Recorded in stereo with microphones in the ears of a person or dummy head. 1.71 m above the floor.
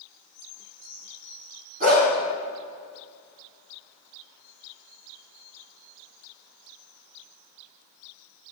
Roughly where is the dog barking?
Right.